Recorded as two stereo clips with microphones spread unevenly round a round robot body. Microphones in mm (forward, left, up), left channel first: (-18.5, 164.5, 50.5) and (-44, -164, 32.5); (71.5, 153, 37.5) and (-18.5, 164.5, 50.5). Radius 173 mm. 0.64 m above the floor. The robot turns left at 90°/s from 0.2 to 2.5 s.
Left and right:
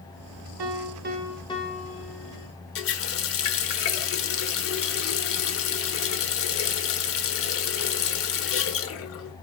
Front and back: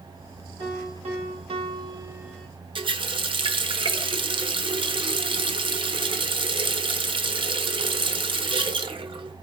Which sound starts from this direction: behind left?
A running tap, at 2.8 s.